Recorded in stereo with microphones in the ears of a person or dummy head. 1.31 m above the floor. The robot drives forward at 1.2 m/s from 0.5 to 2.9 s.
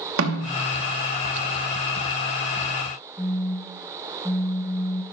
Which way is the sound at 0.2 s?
85° right.